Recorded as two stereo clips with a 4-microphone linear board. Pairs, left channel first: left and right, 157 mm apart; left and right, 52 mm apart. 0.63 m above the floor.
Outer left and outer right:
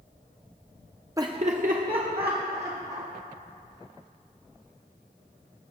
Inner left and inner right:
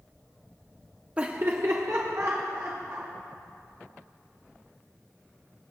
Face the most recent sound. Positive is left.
turn(degrees=-75)  # may be behind; listen again after turning